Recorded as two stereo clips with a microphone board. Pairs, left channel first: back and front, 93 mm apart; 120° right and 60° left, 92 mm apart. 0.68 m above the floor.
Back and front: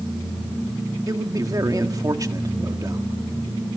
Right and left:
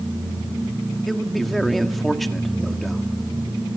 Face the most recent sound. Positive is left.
turn(degrees=-30)